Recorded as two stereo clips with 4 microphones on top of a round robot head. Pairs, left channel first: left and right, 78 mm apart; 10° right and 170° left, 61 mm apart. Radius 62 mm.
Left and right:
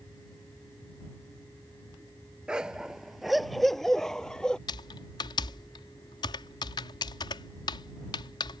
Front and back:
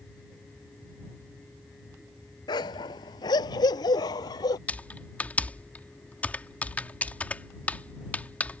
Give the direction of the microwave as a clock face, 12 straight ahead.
I don't hear a microwave.